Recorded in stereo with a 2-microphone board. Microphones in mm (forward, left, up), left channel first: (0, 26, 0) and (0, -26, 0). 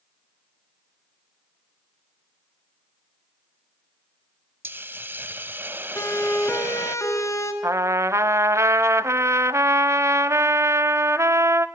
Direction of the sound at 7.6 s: 65° right (ahead or behind).